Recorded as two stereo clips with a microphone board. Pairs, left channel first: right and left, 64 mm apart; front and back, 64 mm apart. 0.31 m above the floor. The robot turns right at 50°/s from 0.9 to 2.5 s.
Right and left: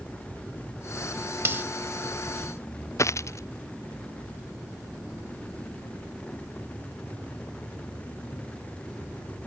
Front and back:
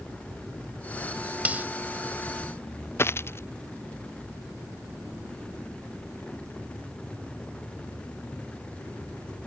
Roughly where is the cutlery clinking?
Behind left.